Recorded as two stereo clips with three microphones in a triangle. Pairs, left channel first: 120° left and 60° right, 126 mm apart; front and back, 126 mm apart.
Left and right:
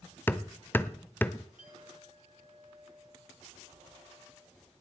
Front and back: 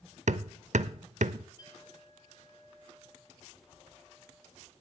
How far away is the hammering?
About 0.5 m.